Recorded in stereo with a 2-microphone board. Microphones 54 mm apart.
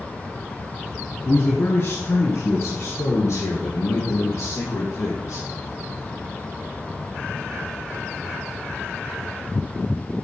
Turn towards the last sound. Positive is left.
turn(degrees=75)  # may be behind; listen again after turning